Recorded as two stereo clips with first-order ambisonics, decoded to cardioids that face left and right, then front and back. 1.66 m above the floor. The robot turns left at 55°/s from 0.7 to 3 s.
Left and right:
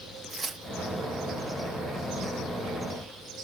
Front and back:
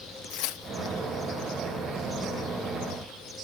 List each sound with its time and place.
0.3 s tearing paper: 15° right, 0.8 m; by 0.9 s 30° right, 0.8 m